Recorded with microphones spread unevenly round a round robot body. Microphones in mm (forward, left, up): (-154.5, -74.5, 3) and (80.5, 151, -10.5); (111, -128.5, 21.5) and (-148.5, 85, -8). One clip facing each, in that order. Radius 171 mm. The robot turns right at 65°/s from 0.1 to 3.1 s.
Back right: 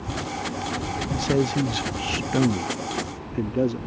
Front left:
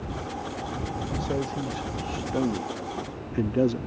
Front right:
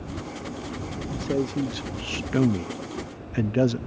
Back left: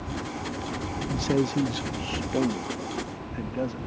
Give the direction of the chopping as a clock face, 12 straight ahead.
I don't hear chopping.